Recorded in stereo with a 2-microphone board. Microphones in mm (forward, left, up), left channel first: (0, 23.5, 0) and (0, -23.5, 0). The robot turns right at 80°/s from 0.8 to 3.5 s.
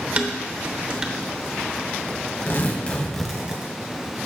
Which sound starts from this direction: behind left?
Tearing paper, at 2.5 s.